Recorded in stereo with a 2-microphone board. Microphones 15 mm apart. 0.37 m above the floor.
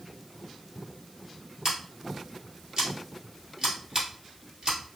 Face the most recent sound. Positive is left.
turn(degrees=-40)  # may be behind; listen again after turning